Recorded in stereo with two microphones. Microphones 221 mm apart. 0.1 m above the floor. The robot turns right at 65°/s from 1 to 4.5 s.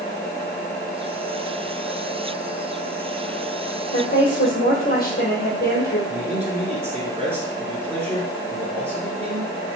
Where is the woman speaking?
95° left, 2.5 m; by 6.0 s 130° left, 2.5 m.